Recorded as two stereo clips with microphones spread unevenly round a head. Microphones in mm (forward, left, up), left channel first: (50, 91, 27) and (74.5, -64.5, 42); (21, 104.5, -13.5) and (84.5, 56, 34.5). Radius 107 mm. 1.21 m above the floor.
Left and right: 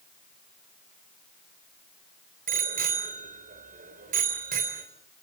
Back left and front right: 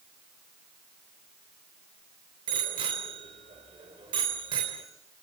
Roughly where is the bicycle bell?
Ahead right.